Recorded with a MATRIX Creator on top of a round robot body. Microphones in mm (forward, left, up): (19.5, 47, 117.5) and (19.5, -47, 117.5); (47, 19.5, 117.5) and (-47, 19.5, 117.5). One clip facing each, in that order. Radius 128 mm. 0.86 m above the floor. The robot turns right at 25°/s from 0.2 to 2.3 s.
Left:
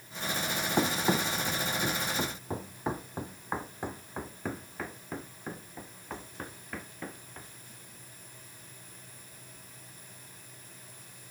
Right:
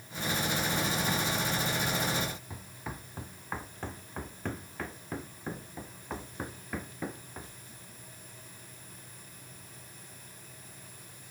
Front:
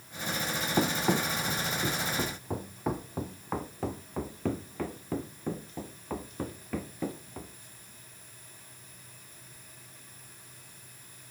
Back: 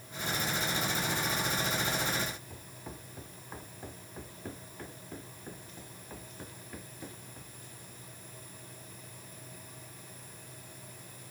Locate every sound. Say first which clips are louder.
0.8 s running footsteps: left 3 dB, front 6 dB; 35° left; by 7.5 s 10° right